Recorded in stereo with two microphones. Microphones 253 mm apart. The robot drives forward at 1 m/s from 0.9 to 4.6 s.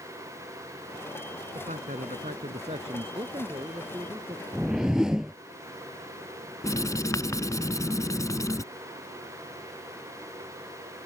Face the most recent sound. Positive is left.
turn(degrees=15)  # may be behind; listen again after turning